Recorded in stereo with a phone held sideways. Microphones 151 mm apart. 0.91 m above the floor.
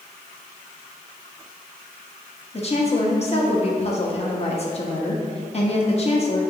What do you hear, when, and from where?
2.5 s a woman speaking: 40° left (ahead or behind), 1.2 m